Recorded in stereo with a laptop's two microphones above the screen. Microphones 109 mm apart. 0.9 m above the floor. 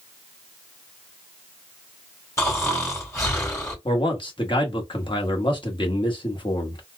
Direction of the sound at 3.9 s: 50° left (ahead or behind).